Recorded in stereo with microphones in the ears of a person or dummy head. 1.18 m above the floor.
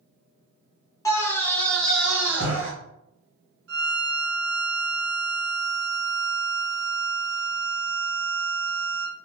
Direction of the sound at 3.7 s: 65° right (ahead or behind).